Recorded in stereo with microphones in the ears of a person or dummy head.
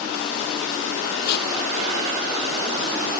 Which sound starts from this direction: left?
Tape being pulled, at 1.2 s.